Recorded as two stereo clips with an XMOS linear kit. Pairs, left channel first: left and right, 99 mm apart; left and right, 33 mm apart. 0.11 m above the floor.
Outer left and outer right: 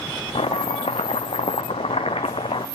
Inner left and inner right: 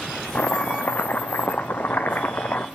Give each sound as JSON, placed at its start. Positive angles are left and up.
{"t": 0.3, "sound": "chopping", "side_deg": 75, "distance_m": 0.9}